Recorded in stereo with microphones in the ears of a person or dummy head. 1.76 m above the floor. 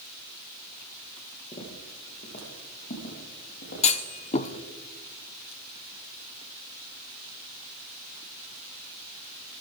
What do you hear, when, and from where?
1.5 s footsteps: 25° left (ahead or behind), 3.5 m; by 4.6 s 50° left (ahead or behind), 6 m
3.8 s a clunk: 35° left (ahead or behind), 0.9 m